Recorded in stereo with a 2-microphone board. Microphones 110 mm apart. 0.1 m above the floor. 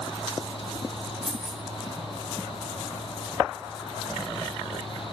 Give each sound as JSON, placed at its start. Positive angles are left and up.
{"t": 1.2, "sound": "keys jangling", "side_deg": 0, "distance_m": 0.9}